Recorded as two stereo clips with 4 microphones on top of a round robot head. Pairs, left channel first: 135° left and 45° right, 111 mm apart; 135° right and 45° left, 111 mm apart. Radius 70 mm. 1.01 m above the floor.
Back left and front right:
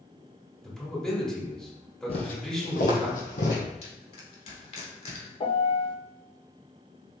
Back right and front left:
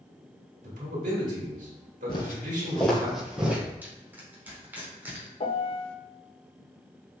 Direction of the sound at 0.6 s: 50° left.